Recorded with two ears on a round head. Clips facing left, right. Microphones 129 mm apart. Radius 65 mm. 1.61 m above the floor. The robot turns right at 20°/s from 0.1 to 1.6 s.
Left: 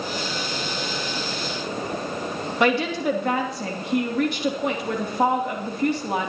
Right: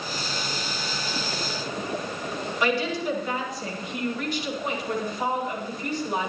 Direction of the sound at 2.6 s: 50° left (ahead or behind).